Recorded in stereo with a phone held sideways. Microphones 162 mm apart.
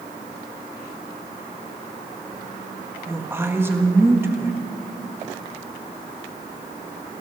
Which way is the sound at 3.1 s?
15° right (ahead or behind).